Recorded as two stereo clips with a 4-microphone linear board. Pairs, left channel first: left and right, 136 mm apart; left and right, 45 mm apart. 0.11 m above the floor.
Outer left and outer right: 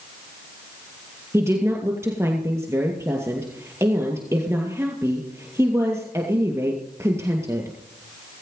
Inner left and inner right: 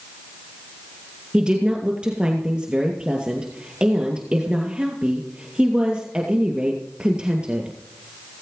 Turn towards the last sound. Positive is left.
turn(degrees=-20)  # may be behind; listen again after turning